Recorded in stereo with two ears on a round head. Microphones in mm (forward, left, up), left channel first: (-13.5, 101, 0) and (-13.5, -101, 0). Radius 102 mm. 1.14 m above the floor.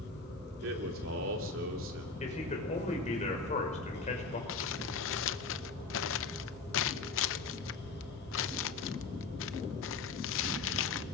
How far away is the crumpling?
About 0.6 m.